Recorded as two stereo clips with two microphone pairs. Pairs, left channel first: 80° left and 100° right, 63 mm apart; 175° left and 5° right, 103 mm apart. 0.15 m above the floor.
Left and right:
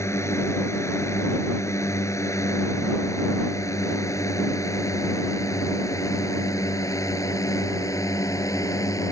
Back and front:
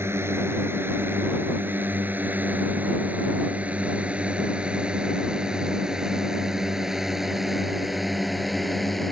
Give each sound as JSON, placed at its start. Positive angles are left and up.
{"t": 0.0, "sound": "a drone", "azimuth_deg": 55}